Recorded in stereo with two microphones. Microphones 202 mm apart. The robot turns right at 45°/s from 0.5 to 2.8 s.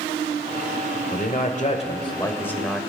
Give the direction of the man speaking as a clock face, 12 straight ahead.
8 o'clock.